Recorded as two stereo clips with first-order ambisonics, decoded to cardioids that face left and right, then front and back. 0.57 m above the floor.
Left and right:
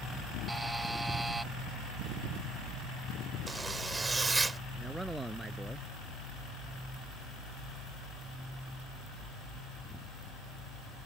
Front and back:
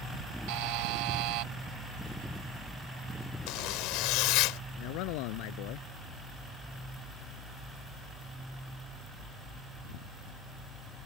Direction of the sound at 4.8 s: 5° right.